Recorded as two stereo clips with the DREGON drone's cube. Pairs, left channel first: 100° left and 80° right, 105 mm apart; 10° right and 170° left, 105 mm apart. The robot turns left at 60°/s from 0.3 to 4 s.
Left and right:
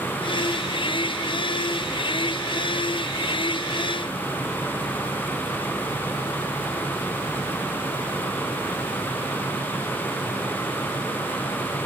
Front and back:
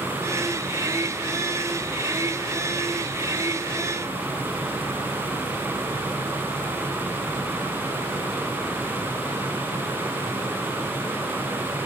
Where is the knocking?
I don't hear knocking.